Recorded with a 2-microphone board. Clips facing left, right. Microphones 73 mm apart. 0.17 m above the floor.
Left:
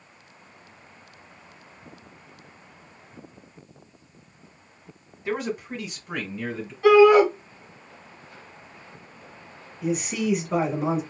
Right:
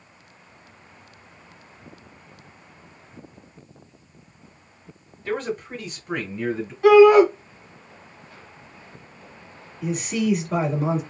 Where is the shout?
5° right (ahead or behind), 1.6 m.